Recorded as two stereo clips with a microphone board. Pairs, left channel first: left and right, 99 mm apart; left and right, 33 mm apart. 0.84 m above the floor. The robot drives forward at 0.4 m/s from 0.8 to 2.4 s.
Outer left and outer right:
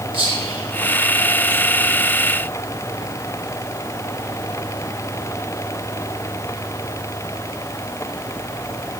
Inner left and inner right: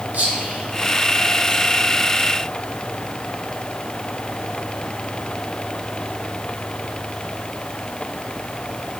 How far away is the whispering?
About 1.5 m.